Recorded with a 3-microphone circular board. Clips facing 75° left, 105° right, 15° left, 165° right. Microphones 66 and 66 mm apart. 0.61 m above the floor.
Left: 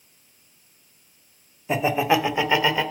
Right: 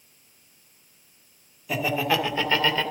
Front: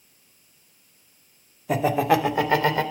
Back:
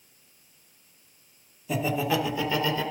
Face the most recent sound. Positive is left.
turn(degrees=-5)